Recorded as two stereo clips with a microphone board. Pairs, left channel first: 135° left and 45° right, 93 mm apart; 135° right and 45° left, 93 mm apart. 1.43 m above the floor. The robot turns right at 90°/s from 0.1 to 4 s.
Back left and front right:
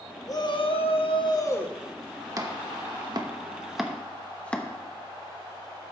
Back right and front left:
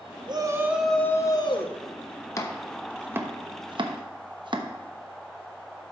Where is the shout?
80° left, 1.4 m; by 1.8 s 145° right, 1.4 m.